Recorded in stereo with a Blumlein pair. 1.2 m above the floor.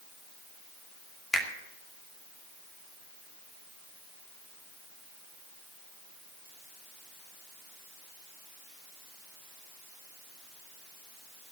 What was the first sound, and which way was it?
A finger snap, 15° left.